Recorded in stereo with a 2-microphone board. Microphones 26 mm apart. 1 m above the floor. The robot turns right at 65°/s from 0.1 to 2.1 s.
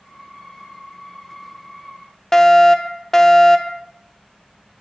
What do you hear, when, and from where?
2.3 s a fire alarm: 15° left (ahead or behind), 1.1 m